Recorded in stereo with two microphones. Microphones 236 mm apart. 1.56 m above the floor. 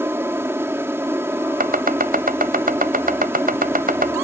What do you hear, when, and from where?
0.0 s an aircraft: 10° right (ahead or behind)
1.6 s chopping: 40° right (ahead or behind)